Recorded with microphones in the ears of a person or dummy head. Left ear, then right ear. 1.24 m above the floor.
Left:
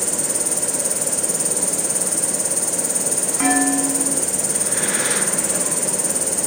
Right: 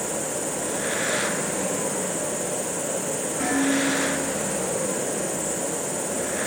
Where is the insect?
45° left (ahead or behind), 2.5 m.